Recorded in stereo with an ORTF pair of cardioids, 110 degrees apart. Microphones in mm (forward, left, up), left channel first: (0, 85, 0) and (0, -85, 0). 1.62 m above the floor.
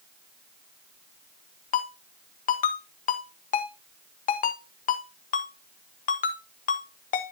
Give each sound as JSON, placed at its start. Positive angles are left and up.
{"t": 1.7, "sound": "a ringtone", "azimuth_deg": 55, "distance_m": 1.5}